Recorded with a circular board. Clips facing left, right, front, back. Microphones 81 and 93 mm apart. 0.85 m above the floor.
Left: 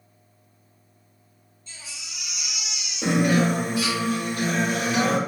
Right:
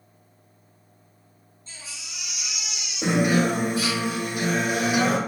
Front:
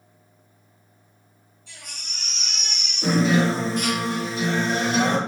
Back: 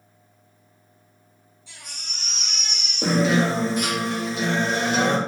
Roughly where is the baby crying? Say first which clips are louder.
Even, even; ahead right.